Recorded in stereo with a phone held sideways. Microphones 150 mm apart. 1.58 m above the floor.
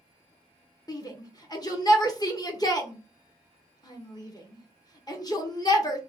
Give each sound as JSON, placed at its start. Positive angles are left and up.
{"t": 0.9, "sound": "a shout", "side_deg": 25, "distance_m": 1.1}